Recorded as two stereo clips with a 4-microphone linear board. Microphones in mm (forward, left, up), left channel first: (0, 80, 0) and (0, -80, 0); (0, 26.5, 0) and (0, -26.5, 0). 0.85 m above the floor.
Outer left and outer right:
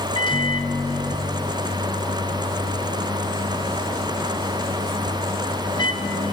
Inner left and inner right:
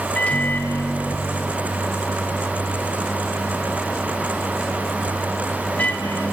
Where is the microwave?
30° left (ahead or behind), 0.7 m.